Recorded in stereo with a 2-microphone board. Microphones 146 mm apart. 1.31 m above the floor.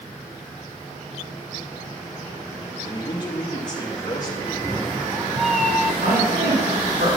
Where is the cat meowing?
Centre (ahead or behind), 0.7 m.